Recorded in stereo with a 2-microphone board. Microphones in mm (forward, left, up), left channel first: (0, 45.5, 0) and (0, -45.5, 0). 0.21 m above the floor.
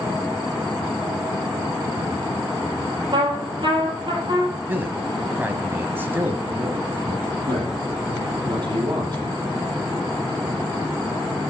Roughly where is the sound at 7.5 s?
Right.